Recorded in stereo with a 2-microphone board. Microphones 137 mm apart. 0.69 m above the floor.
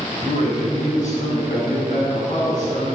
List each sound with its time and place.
0.1 s a man speaking: 65° left (ahead or behind), 3 m; by 2.9 s 70° left (ahead or behind), 5.5 m